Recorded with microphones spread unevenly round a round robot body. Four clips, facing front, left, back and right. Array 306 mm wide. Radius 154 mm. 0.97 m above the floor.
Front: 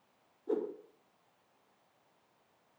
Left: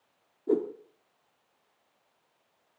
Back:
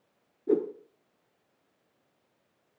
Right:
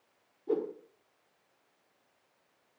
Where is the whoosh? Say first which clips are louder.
Left 4 dB, back 8 dB; 150° left, 1.1 m.